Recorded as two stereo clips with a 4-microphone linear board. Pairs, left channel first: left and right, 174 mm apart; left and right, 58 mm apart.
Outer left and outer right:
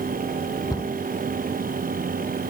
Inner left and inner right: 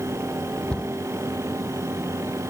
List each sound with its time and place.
0.7 s a cupboard door: 20° left (ahead or behind)